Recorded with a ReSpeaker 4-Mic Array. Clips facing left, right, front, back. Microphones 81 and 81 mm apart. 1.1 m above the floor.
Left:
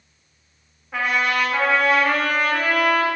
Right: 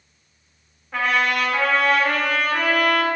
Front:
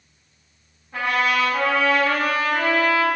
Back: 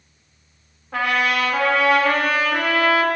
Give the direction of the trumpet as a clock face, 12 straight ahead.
6 o'clock.